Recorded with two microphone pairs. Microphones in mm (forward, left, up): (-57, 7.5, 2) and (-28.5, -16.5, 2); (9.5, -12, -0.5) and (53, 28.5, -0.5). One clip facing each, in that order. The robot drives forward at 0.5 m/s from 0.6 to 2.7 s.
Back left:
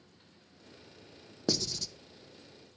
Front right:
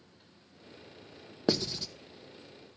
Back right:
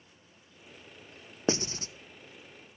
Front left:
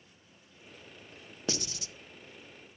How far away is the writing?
About 0.9 m.